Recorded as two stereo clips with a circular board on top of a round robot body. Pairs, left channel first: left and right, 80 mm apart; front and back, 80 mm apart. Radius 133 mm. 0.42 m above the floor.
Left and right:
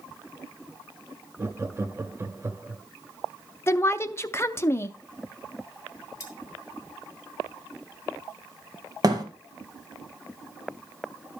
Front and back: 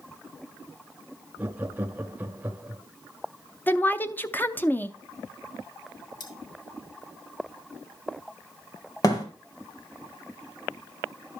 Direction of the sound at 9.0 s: 45° right.